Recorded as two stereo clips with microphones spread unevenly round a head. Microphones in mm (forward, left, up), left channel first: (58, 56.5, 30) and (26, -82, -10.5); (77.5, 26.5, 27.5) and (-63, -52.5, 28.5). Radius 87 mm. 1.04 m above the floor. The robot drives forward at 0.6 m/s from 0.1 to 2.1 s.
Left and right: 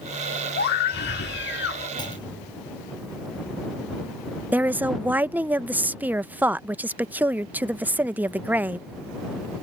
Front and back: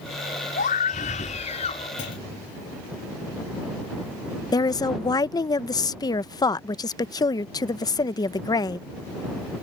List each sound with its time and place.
0.6 s a scream: 70° left; by 1.9 s 85° left
2.0 s a clunk: 20° left
4.5 s a woman speaking: 35° right